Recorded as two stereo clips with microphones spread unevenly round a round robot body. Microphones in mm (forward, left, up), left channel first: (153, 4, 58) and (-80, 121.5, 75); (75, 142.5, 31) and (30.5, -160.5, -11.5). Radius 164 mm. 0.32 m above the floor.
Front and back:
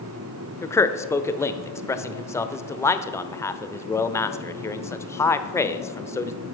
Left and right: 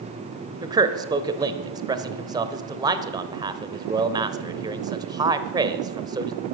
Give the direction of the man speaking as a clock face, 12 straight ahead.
3 o'clock.